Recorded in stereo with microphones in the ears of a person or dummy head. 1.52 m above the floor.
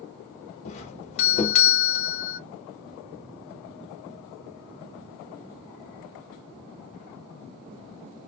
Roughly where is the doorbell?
Left.